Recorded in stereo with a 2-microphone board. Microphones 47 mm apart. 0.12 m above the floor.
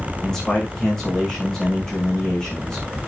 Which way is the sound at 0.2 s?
15° left (ahead or behind).